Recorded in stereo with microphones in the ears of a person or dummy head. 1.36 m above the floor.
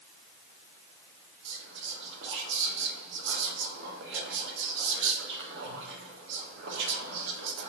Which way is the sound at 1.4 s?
65° right (ahead or behind).